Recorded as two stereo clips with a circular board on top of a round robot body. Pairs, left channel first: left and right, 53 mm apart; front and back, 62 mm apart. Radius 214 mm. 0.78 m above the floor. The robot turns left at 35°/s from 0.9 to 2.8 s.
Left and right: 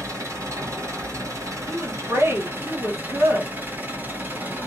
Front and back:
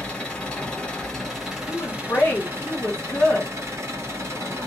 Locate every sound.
0.0 s an engine running: 70° right, 1.8 m; by 4.7 s 140° right, 1.8 m
1.7 s a woman speaking: 40° right, 1.8 m; by 3.5 s 80° right, 1.8 m